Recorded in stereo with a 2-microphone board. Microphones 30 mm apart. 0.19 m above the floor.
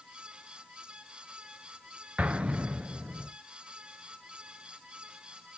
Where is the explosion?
45° right (ahead or behind), 0.6 m.